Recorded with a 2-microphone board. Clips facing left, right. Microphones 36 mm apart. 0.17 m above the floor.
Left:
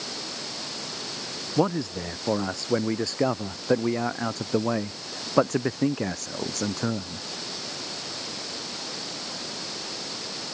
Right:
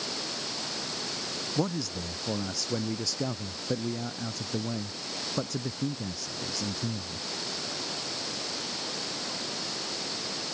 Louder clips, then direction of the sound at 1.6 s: Left 7 dB; 35° left (ahead or behind).